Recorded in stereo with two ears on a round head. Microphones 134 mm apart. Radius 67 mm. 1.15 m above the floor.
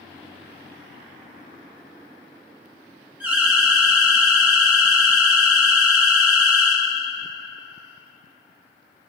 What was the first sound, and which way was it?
An alarm, 15° right (ahead or behind).